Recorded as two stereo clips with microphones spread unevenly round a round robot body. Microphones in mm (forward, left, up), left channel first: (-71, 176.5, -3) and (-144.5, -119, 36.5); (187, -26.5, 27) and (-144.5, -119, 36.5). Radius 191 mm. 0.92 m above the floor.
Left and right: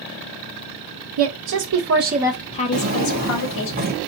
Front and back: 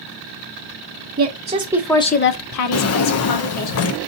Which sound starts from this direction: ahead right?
A drawer, at 2.7 s.